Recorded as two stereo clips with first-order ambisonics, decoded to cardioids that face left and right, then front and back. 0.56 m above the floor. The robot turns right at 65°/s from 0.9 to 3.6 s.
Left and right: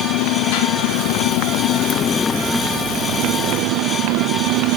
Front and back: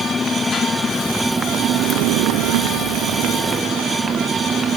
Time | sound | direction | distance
0.0 | a motorcycle | 75° left | ?